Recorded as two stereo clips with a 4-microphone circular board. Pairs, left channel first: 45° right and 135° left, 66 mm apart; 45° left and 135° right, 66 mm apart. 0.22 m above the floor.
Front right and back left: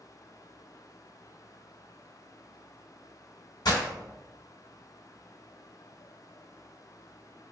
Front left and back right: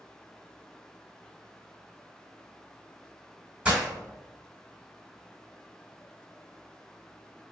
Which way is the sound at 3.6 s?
60° right.